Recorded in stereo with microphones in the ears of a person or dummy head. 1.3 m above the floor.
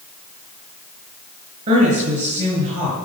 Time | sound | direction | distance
1.7 | a woman speaking | 40° right (ahead or behind) | 9 m